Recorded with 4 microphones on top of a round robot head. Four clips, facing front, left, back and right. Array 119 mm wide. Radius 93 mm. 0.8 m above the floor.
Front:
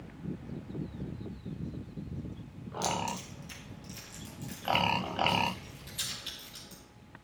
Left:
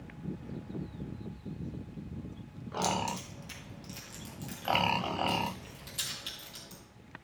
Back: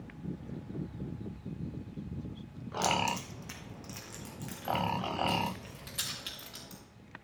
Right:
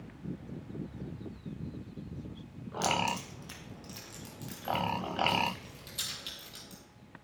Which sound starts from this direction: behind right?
Keys jangling, at 2.8 s.